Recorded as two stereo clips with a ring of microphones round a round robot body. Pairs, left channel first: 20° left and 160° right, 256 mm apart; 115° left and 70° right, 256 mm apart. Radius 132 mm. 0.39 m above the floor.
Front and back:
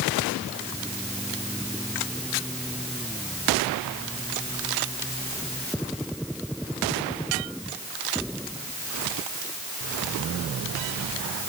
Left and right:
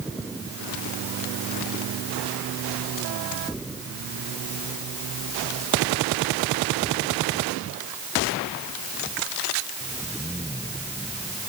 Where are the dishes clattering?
I don't hear dishes clattering.